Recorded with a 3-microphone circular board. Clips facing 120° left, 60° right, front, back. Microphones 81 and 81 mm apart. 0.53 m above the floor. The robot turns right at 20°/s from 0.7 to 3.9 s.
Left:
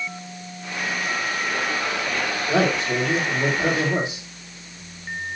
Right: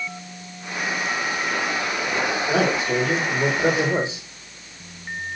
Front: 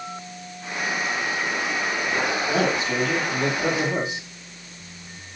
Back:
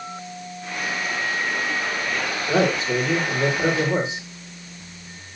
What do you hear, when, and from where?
2.5 s a man speaking: 145° right, 2 m; by 4.2 s 115° right, 2 m